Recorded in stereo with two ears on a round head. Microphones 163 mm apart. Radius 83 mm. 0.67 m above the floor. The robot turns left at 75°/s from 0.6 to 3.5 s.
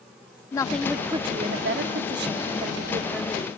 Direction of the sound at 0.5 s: 20° left.